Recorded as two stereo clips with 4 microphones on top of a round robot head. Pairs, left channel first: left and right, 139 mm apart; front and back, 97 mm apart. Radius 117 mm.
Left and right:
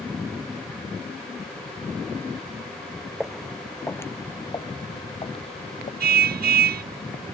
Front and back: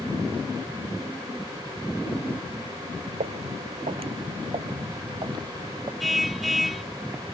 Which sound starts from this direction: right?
A car horn, at 6.0 s.